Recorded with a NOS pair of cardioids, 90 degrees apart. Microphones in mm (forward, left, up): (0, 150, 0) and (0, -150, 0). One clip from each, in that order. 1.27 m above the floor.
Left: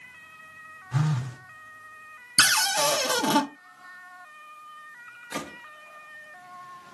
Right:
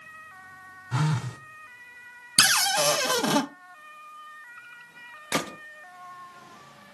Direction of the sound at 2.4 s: 10° right.